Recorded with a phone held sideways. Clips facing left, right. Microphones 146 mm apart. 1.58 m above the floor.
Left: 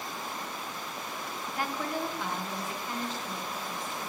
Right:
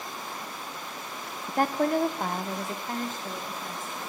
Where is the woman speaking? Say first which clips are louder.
Right 10 dB; 45° right (ahead or behind), 0.5 m.